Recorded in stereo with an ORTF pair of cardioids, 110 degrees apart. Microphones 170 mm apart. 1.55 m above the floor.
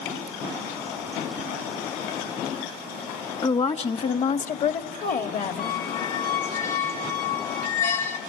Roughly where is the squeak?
Ahead left.